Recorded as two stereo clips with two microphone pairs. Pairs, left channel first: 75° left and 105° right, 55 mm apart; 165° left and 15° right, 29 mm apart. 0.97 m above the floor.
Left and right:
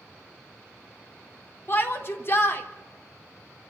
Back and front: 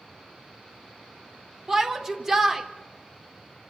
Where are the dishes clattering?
No dishes clattering in this recording.